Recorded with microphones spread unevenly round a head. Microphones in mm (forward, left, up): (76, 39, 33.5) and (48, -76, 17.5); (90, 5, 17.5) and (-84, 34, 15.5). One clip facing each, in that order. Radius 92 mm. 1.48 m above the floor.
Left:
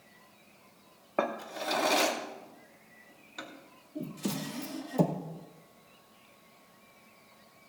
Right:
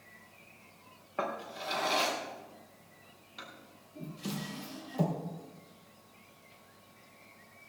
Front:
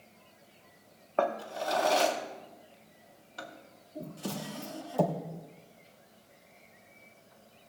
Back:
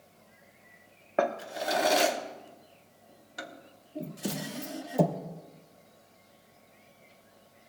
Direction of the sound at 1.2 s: 105° left.